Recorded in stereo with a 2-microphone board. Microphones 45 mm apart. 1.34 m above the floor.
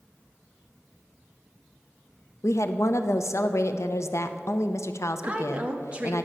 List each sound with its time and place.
2.4 s a woman speaking: 75° left (ahead or behind), 0.6 m
5.2 s a woman speaking: 25° right (ahead or behind), 1.1 m